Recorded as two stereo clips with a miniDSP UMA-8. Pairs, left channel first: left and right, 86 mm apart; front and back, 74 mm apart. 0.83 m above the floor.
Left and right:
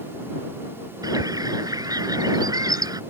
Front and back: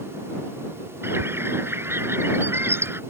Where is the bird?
125° right.